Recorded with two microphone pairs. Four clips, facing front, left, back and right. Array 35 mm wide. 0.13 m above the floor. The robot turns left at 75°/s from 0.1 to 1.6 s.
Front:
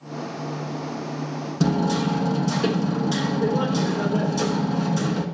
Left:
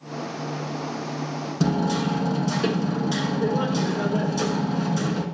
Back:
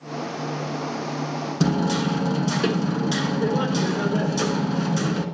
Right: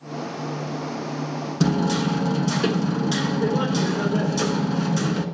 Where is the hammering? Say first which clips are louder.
Right 2 dB, front 1 dB; 140° right, 0.6 m.